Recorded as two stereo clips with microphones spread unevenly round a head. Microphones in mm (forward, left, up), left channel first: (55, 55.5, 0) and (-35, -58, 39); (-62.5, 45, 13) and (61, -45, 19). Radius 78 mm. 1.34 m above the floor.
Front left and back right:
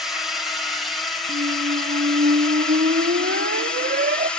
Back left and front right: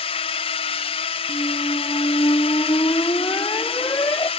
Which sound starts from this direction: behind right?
A squeak, at 1.3 s.